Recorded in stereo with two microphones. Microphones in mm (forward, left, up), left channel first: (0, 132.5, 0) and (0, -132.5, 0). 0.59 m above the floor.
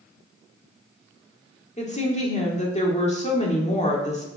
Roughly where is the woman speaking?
Left.